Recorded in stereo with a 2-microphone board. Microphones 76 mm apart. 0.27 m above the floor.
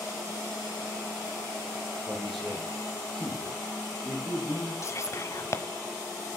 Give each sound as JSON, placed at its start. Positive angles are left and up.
{"t": 2.1, "sound": "a man speaking", "side_deg": 5, "distance_m": 6.0}
{"t": 4.8, "sound": "whispering", "side_deg": 40, "distance_m": 1.3}